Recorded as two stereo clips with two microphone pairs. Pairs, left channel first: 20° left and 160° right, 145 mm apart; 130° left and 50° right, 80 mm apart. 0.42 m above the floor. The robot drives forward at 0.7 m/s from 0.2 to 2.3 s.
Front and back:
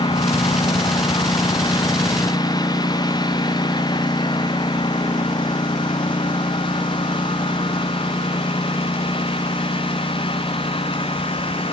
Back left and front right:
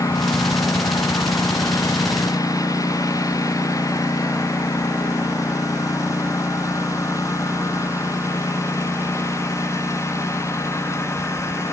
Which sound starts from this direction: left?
A lawn mower, at 0.0 s.